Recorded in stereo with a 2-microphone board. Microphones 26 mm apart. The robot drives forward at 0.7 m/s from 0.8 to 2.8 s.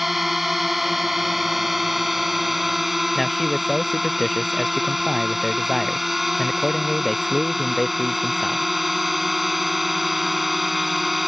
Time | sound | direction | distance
0.0 | a drone | 10° right (ahead or behind) | ?
3.1 | a man speaking | 5° left (ahead or behind) | ?